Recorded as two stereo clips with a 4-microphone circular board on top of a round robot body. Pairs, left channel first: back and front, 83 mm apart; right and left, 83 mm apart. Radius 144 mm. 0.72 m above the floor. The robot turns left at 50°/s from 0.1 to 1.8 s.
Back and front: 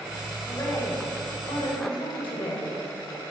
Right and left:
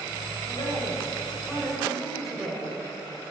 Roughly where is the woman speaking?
Behind right.